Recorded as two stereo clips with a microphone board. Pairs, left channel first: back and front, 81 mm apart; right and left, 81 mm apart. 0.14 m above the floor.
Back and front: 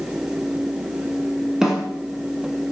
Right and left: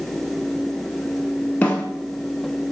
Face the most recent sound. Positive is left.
turn(degrees=-70)